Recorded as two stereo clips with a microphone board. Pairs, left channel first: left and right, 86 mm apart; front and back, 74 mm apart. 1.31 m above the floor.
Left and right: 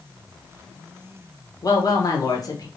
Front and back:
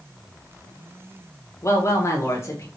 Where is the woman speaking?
50° left, 1.4 m.